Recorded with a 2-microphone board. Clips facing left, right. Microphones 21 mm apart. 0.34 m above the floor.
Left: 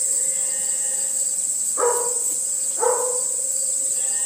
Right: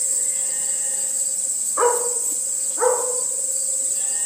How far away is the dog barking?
About 1.3 m.